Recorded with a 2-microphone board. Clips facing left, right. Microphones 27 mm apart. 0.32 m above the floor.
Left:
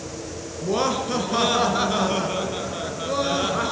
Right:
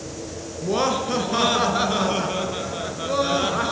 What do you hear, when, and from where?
0.6 s laughter: 5° right (ahead or behind), 4.5 m